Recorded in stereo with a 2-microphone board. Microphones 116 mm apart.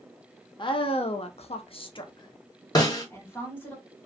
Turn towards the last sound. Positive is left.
turn(degrees=35)  # may be behind; listen again after turning